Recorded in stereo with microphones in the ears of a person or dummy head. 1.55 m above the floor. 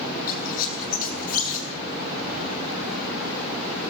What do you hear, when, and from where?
0.3 s a squeak: 45° left (ahead or behind), 7 m